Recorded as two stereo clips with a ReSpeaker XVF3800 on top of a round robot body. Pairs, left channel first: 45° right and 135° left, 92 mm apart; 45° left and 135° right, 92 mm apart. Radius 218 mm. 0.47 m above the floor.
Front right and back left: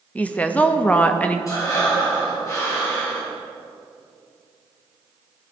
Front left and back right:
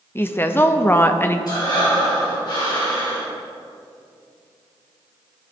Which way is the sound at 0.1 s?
10° left.